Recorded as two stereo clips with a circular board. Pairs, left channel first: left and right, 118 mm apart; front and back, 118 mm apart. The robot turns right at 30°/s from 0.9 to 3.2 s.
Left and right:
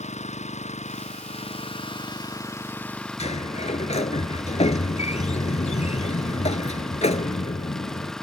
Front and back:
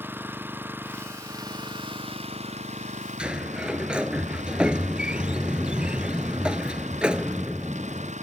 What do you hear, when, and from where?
0.0 s an engine running: 105° left; by 8.2 s 175° left
3.2 s a sliding door: 100° left